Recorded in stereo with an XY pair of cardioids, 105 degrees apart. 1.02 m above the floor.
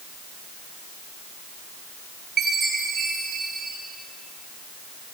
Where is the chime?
55° right, 5.5 m.